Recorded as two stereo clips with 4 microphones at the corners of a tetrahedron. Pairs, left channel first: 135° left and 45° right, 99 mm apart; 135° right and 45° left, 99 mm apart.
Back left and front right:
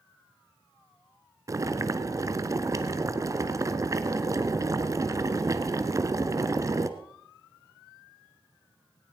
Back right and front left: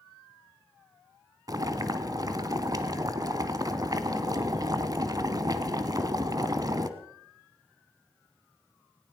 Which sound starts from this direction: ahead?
Boiling, at 1.5 s.